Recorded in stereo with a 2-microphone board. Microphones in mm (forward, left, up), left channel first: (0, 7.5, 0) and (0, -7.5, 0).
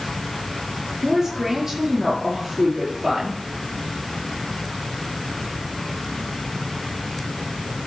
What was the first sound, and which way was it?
A woman speaking, 35° right (ahead or behind).